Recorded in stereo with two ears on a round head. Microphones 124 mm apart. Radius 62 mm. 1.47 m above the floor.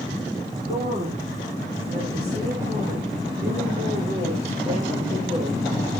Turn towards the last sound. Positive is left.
turn(degrees=-55)  # may be behind; listen again after turning